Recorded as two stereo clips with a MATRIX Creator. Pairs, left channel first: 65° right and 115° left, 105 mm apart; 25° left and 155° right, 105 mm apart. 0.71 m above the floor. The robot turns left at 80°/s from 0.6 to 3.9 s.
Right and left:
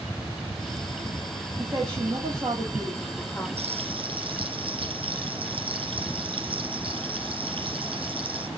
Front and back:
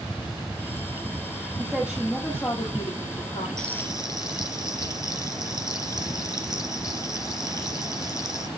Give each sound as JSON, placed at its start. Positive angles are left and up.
{"t": 1.6, "sound": "a woman speaking", "azimuth_deg": 150, "distance_m": 1.8}
{"t": 3.6, "sound": "frying", "azimuth_deg": 105, "distance_m": 2.5}